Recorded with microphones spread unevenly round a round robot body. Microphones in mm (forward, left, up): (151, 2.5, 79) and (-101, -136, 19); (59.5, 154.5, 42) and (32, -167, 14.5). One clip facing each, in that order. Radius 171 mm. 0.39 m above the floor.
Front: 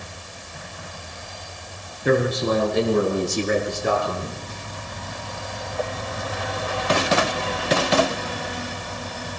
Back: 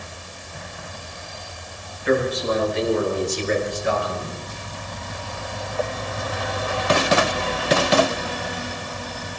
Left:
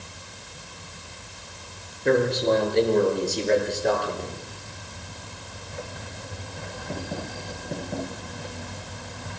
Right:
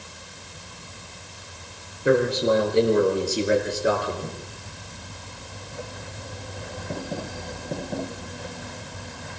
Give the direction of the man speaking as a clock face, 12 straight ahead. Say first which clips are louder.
Front 1 dB, right 1 dB; 12 o'clock.